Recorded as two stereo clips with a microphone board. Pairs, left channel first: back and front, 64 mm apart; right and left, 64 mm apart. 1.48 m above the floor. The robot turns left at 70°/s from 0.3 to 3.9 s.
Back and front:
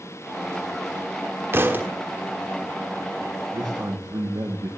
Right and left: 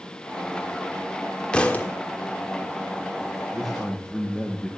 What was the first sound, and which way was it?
A thud, 25° right.